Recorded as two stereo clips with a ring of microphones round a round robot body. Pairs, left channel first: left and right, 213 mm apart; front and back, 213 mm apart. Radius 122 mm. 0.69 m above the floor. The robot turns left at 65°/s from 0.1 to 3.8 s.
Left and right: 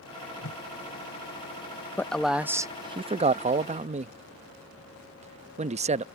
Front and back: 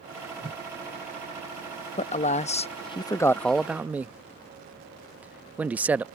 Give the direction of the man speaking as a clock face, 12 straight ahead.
11 o'clock.